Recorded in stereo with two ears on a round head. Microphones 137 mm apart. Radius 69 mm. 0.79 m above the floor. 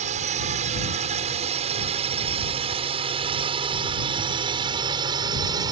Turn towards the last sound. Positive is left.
turn(degrees=-25)  # may be behind; listen again after turning